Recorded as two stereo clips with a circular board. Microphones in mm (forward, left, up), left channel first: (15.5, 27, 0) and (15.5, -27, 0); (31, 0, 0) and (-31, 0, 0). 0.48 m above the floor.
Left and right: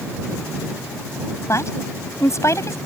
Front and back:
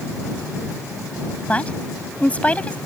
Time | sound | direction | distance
1.5 | a woman speaking | 65° left | ?